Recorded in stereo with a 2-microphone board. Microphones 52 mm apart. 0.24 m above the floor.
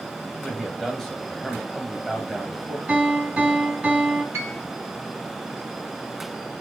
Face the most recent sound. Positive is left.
turn(degrees=-65)  # may be behind; listen again after turning